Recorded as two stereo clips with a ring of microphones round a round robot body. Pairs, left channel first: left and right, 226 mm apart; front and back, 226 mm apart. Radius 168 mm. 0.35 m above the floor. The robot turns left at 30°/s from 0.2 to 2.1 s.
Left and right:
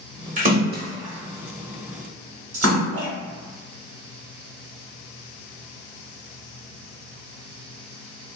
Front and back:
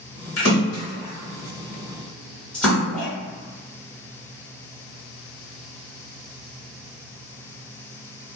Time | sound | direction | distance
0.4 | a splash | 35° right | 1.2 m